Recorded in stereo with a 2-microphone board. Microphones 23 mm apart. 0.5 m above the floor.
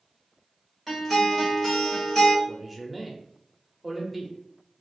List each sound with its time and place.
0.9 s a guitar: 5° left (ahead or behind), 1.6 m
2.5 s a man speaking: 5° right (ahead or behind), 0.7 m